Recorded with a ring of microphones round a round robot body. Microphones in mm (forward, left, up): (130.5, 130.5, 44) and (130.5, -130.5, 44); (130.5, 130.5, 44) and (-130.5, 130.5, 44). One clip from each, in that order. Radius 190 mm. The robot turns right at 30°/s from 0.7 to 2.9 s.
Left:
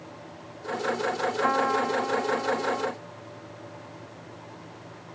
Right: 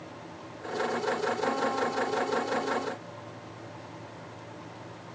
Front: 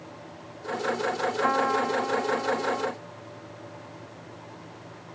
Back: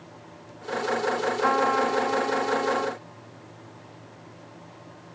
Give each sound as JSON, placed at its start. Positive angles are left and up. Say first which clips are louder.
{"t": 1.4, "sound": "a trumpet", "louder": "left 8 dB, back 2 dB", "azimuth_deg": 110}